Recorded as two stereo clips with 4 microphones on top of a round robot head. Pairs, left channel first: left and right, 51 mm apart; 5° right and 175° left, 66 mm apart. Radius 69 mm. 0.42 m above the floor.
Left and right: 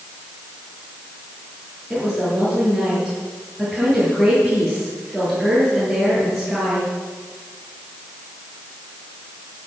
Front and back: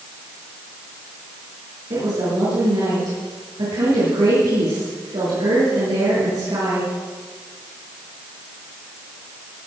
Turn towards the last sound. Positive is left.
turn(degrees=180)